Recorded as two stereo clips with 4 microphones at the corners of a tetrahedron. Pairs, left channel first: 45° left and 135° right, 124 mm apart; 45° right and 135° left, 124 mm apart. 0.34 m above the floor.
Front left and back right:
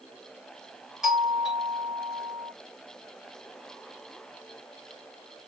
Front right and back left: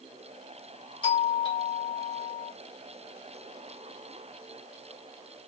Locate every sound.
1.0 s a doorbell: 50° right, 2 m